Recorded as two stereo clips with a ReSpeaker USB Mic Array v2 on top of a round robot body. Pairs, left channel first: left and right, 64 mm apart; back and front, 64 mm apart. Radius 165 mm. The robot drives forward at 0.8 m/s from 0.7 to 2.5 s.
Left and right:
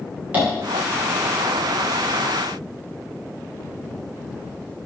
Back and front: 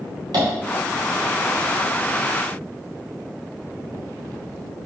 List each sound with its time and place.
0.3 s tapping: 20° right, 2.5 m